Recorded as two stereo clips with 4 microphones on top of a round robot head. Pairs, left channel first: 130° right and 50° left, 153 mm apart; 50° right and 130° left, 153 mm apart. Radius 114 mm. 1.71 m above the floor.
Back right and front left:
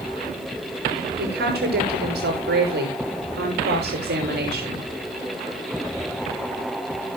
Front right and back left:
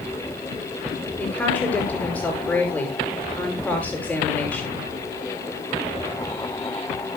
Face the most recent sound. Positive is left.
turn(degrees=35)